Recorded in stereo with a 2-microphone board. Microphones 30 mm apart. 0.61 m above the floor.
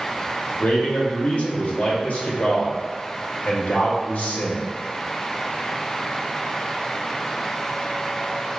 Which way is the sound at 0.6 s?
70° left (ahead or behind).